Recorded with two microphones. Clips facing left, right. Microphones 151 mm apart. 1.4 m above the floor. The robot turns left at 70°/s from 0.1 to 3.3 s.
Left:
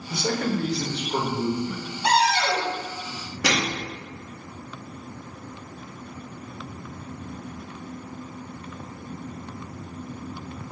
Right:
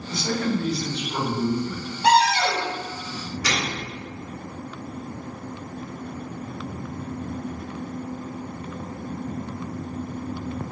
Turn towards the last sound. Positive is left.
turn(degrees=65)  # may be behind; listen again after turning